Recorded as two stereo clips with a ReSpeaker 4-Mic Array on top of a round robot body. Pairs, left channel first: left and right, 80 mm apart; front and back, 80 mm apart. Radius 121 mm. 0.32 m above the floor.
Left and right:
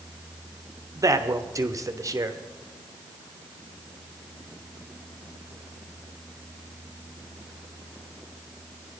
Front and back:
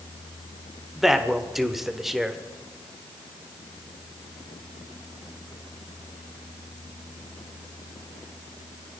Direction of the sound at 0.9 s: 95° right.